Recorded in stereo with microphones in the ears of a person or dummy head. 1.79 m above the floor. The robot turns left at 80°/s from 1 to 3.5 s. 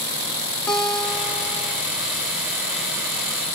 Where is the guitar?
165° left, 0.7 m; by 1.8 s 100° left, 0.7 m.